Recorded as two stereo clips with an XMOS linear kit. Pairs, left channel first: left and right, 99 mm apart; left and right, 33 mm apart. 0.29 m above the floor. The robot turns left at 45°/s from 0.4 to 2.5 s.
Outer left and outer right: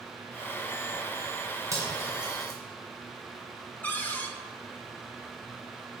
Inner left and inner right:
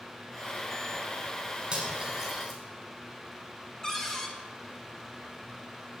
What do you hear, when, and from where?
1.7 s cutlery clinking: 30° right (ahead or behind), 1.6 m; by 2.5 s centre (ahead or behind), 1.6 m
3.8 s a cupboard door: 15° left (ahead or behind), 0.7 m